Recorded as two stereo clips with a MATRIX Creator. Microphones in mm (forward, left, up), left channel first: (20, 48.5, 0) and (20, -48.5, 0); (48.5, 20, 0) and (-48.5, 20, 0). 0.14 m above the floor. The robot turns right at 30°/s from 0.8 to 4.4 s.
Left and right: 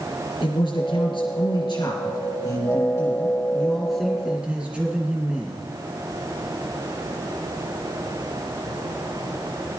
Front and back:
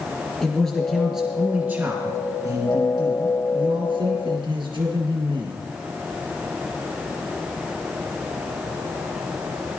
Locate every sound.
0.4 s a man speaking: 85° left, 2.5 m; by 5.7 s 165° right, 2.5 m